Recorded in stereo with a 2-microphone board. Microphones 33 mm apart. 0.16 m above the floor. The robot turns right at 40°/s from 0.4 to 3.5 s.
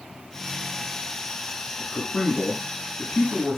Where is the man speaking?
15° left (ahead or behind), 1.4 m; by 3.6 s 25° left (ahead or behind), 1.4 m.